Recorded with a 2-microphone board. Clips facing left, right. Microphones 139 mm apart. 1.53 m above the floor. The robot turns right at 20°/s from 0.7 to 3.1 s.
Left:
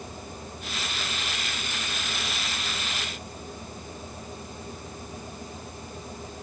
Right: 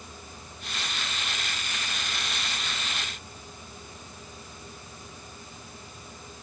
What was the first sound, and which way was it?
Only background noise.